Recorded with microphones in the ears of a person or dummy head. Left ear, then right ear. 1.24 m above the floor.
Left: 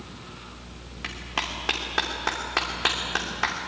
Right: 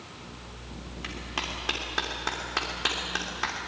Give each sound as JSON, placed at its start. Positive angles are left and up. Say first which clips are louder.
{"t": 1.0, "sound": "a clap", "louder": "left 4 dB", "side_deg": 15, "distance_m": 2.5}